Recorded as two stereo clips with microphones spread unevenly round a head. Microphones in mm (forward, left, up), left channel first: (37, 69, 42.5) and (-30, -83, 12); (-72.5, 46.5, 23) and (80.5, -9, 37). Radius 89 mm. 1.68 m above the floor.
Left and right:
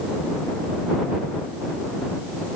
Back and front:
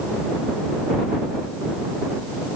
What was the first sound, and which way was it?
Only background noise.